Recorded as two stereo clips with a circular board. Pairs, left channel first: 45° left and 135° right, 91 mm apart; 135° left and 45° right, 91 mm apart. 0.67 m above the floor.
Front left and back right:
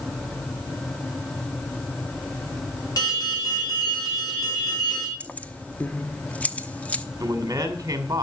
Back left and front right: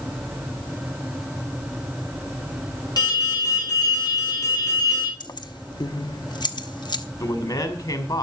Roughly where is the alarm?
Left.